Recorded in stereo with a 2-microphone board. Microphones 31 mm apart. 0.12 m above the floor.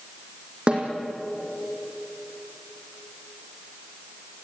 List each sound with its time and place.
0.7 s a snare drum: 35° right (ahead or behind), 4.5 m